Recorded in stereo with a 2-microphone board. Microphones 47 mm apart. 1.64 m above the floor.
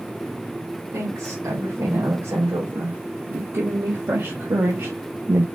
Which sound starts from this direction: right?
A woman speaking, at 0.9 s.